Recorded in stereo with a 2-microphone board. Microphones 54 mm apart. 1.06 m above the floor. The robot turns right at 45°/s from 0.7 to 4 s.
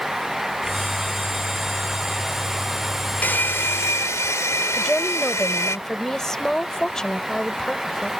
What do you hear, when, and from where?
3.2 s a hair dryer: 35° left; by 5.8 s 70° left
4.8 s a woman speaking: 10° left (ahead or behind)